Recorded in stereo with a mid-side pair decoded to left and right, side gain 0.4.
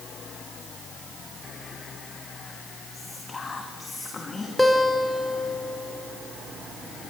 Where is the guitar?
Straight ahead, 3.5 m.